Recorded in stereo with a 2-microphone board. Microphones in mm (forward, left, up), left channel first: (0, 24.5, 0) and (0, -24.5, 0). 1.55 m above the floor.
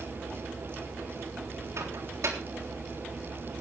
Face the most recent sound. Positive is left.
turn(degrees=-80)